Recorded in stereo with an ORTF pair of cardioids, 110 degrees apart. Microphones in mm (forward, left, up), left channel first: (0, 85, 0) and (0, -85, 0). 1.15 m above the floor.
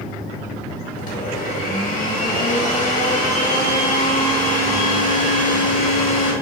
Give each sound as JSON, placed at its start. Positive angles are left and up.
{"t": 1.0, "sound": "a blender", "azimuth_deg": 55, "distance_m": 1.4}